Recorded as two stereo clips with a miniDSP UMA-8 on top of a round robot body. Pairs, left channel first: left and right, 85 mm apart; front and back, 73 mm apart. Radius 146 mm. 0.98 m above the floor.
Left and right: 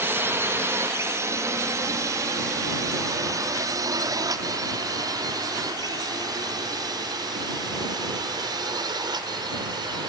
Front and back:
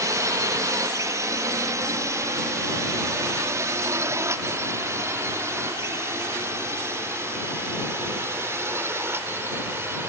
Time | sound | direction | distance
0.0 | a drone | 150° right | ?